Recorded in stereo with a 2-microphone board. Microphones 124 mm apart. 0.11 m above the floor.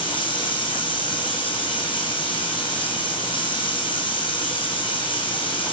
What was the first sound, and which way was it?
Running water, 40° left (ahead or behind).